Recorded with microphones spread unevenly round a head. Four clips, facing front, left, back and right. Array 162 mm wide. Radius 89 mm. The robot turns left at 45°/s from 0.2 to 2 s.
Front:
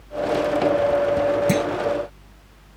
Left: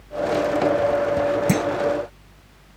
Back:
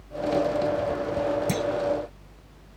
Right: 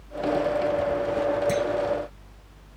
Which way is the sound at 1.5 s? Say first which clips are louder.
Left 3 dB, front 6 dB; 60° left.